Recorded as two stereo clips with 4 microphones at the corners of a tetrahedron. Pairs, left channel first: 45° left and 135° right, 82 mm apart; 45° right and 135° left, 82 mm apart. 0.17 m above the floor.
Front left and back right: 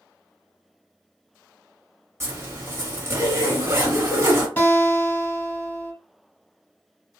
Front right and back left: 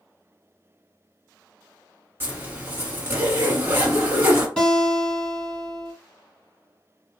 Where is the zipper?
175° right, 1.2 m.